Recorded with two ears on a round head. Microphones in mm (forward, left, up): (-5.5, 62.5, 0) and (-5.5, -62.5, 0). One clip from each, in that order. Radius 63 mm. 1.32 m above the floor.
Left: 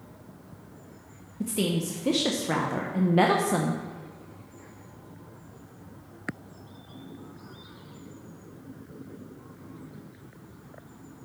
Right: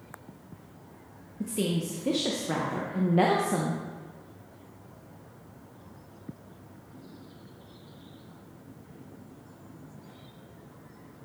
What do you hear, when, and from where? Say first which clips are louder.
1.4 s a woman speaking: left 2 dB; 20° left (ahead or behind), 0.6 m